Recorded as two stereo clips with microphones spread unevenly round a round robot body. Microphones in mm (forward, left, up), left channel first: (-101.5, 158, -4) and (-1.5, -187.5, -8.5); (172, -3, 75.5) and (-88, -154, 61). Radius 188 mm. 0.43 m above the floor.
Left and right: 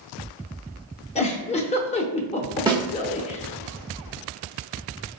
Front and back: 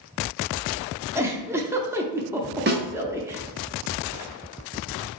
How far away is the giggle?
About 0.6 m.